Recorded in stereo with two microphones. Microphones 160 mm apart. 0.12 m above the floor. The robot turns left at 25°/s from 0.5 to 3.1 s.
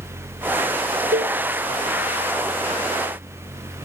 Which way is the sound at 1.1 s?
75° right (ahead or behind).